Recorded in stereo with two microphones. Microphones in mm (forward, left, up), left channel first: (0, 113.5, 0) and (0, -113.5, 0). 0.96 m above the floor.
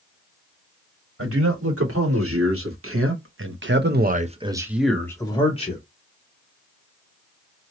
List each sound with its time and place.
1.2 s a man speaking: 75° right (ahead or behind), 1.7 m; by 5.8 s 30° left (ahead or behind), 0.9 m